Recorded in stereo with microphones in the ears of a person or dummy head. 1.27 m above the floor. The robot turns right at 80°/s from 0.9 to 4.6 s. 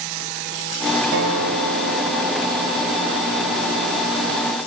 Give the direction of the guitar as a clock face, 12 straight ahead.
4 o'clock.